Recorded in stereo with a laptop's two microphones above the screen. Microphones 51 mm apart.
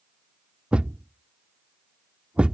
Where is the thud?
20° right (ahead or behind).